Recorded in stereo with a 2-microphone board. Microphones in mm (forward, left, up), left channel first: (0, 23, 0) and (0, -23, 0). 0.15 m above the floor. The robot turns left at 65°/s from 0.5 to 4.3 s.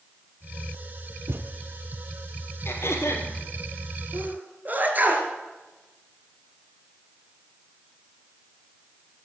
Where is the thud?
65° right (ahead or behind), 1.1 m; by 1.5 s 50° right (ahead or behind), 1.1 m.